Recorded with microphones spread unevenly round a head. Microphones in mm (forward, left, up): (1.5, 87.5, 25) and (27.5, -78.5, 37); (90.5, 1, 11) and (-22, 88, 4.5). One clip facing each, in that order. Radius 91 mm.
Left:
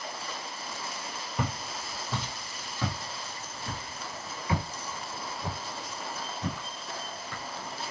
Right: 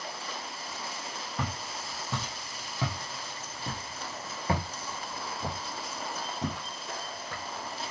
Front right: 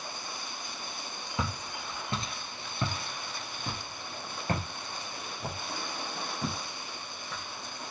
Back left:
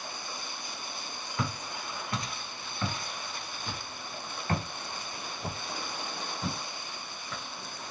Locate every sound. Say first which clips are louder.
1.4 s footsteps: left 3 dB, even; 20° left, 1.5 m; by 7.9 s 115° right, 3 m